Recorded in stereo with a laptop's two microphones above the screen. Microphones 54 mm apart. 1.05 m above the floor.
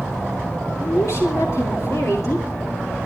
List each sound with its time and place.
0.8 s a woman speaking: 60° left (ahead or behind), 2.5 m